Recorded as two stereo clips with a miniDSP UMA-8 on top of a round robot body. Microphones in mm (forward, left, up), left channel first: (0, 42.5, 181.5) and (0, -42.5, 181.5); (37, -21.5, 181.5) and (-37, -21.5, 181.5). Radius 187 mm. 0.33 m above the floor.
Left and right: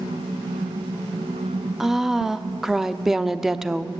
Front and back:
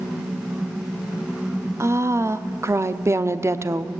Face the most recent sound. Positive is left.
turn(degrees=-170)